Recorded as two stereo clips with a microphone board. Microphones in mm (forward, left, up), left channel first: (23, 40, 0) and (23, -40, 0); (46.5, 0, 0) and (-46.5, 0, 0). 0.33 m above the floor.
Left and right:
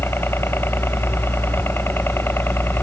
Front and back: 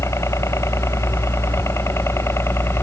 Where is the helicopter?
45° left.